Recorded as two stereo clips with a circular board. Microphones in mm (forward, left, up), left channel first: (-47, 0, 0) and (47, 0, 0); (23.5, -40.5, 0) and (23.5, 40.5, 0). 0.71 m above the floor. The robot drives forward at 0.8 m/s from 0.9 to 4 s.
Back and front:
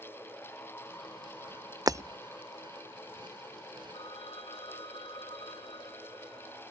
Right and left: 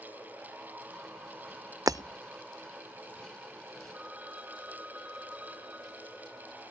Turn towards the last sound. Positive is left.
turn(degrees=160)